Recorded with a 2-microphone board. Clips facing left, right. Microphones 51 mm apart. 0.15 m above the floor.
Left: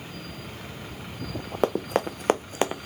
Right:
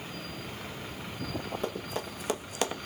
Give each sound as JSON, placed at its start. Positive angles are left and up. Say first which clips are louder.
{"t": 1.6, "sound": "running footsteps", "louder": "left 10 dB", "side_deg": 80, "distance_m": 0.9}